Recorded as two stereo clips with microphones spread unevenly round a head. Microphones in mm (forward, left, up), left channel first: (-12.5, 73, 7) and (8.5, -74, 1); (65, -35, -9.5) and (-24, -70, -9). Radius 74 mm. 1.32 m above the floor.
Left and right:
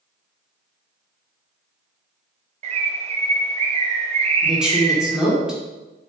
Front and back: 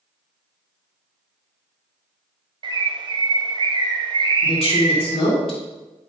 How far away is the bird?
About 1.1 m.